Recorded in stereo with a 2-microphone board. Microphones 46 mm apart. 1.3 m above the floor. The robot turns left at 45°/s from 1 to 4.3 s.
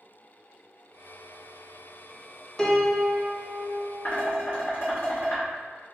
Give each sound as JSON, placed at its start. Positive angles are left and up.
{"t": 2.6, "sound": "a piano", "azimuth_deg": 15, "distance_m": 0.5}
{"t": 4.0, "sound": "dishes clattering", "side_deg": 55, "distance_m": 1.4}